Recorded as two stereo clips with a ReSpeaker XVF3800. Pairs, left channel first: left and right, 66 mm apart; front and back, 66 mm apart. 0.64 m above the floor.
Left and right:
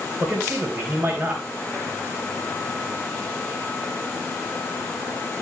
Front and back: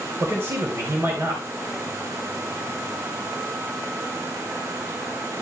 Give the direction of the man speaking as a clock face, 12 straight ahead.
5 o'clock.